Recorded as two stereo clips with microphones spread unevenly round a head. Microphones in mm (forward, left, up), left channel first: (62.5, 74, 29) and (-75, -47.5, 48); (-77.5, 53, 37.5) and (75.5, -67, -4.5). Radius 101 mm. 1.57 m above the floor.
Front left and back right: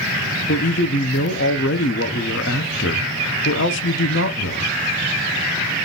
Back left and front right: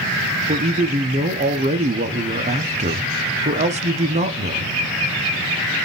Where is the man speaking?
20° left, 0.6 m.